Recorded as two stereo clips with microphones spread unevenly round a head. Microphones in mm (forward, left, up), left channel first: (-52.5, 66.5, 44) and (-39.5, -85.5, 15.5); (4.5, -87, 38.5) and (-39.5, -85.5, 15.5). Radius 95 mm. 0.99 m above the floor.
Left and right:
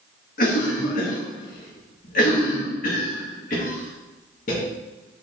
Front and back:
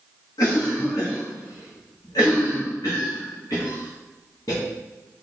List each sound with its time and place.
0.4 s a cough: 45° left, 1.0 m